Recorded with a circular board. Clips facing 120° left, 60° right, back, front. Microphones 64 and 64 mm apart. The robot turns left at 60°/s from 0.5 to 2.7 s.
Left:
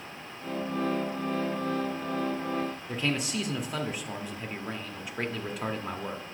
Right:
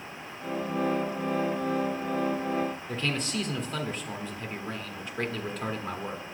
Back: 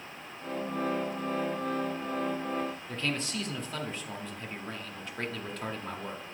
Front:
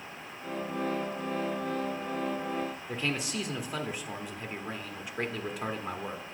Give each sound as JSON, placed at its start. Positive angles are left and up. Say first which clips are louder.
{"t": 2.9, "sound": "a man speaking", "louder": "left 1 dB, front 1 dB", "azimuth_deg": 55, "distance_m": 0.9}